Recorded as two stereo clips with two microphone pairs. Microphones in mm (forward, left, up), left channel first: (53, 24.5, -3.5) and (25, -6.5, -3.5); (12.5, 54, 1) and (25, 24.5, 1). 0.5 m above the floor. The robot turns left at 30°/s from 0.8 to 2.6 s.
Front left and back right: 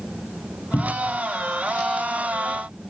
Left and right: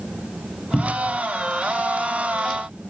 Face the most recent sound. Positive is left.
turn(degrees=5)